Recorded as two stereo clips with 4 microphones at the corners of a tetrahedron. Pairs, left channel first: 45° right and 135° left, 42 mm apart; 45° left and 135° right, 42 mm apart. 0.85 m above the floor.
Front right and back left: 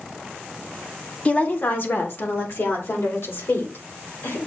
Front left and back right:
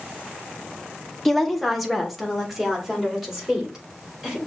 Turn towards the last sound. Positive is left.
turn(degrees=-50)